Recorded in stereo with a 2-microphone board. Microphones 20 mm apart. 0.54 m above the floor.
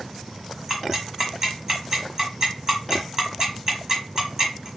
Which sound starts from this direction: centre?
Ticking, at 0.7 s.